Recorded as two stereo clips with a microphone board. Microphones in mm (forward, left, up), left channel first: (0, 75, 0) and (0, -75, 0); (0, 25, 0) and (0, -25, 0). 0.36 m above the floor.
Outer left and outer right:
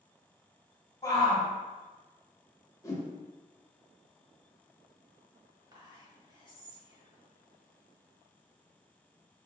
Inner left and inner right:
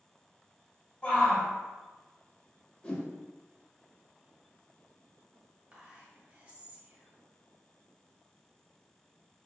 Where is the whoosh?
20° left (ahead or behind), 0.8 m.